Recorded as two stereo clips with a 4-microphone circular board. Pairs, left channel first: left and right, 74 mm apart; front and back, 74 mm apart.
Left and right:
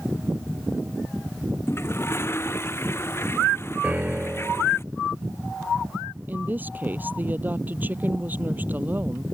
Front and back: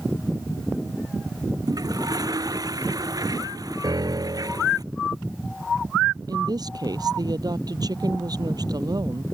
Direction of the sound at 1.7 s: 145° left.